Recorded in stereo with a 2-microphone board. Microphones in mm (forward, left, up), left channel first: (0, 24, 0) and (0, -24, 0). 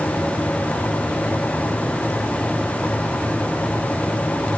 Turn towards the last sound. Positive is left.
No sound to turn to.